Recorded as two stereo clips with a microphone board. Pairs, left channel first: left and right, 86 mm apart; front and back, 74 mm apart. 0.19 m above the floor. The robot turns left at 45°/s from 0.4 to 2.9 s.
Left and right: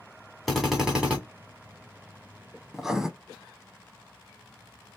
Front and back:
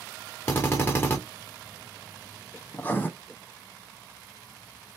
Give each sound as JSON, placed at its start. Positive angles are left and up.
{"t": 0.5, "sound": "a drill", "azimuth_deg": 5, "distance_m": 1.6}
{"t": 2.7, "sound": "writing", "azimuth_deg": -5, "distance_m": 0.5}